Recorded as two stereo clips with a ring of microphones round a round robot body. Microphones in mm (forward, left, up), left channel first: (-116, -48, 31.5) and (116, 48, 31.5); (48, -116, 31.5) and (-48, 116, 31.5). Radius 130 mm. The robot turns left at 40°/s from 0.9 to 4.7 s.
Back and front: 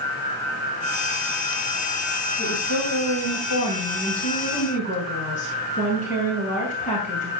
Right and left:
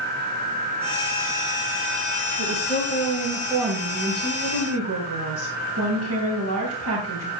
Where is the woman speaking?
125° right, 2.5 m; by 7.3 s 140° left, 2.5 m.